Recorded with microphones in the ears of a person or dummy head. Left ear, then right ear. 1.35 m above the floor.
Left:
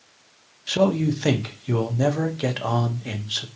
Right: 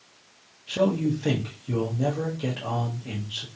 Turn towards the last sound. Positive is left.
turn(degrees=75)  # may be behind; listen again after turning